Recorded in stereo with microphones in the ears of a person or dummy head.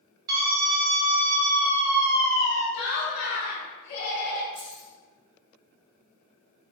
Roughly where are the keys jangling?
Right.